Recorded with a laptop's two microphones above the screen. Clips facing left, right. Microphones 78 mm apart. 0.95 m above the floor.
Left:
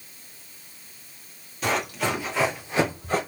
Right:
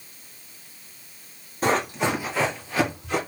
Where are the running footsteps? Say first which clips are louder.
Right 3 dB; 40° right (ahead or behind), 1.5 m; by 3.2 s 40° left (ahead or behind), 1.4 m.